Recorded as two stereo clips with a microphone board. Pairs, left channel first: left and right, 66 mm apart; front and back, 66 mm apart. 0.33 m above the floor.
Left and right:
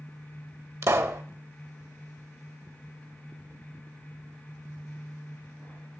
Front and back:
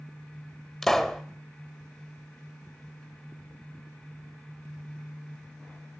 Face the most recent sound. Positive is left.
turn(degrees=-80)